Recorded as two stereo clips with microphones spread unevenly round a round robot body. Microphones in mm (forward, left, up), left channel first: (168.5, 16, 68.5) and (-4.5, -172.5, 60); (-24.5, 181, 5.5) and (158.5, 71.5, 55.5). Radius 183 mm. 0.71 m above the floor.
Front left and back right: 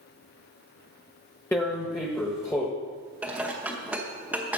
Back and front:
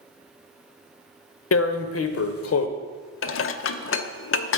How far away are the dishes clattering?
About 0.7 m.